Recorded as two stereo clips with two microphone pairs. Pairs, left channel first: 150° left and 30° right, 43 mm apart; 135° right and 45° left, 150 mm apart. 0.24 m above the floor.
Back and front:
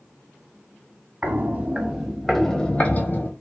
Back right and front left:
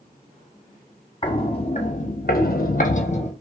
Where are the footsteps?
80° right, 0.8 m; by 3.3 s 175° right, 0.7 m.